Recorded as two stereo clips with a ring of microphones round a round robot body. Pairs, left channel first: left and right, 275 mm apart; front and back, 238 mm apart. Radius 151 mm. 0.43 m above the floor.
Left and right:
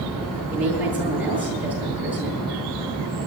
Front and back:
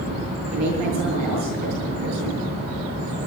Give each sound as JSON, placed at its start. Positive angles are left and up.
{"t": 0.5, "sound": "a woman speaking", "azimuth_deg": -175, "distance_m": 9.5}